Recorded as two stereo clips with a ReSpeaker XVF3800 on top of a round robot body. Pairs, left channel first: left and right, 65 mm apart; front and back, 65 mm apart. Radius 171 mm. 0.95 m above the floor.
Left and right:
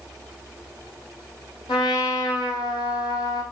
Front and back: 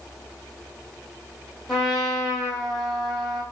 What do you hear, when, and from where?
1.7 s a trumpet: 85° left, 1.1 m